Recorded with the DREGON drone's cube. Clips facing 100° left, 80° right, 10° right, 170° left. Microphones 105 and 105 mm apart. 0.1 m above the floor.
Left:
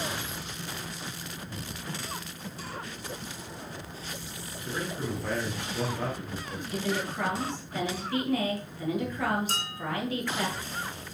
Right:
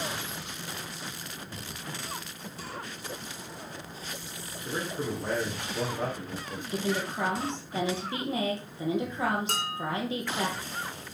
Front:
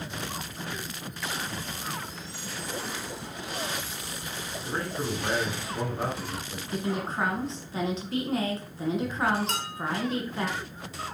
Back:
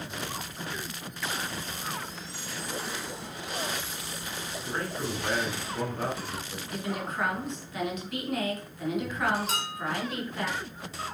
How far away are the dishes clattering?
About 2 m.